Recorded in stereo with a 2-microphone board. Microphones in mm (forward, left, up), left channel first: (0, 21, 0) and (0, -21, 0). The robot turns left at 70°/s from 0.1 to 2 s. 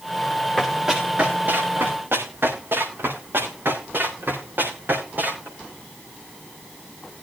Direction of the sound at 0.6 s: 15° left (ahead or behind).